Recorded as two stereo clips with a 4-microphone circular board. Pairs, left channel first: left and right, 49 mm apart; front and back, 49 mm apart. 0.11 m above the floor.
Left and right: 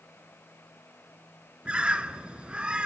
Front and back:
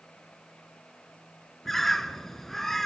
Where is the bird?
75° right, 0.8 m.